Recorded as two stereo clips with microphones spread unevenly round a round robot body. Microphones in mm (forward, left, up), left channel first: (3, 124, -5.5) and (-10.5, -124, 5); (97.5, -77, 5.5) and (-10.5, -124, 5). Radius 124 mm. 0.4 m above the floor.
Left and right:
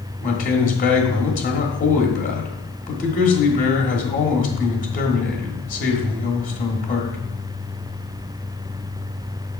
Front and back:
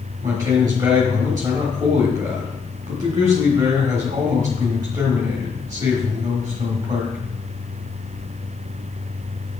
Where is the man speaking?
140° left, 1.4 m.